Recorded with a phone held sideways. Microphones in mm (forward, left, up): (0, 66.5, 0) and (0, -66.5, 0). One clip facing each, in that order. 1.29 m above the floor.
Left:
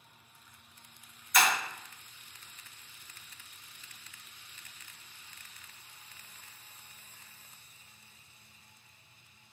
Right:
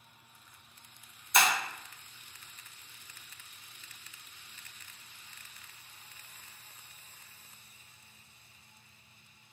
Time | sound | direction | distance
1.3 | breaking glass | 25° right (ahead or behind) | 0.8 m